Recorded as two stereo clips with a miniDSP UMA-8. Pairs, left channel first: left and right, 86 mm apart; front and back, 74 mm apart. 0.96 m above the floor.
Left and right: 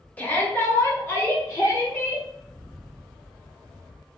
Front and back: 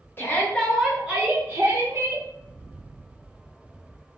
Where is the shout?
35° left, 0.8 m; by 2.2 s 150° left, 1.2 m.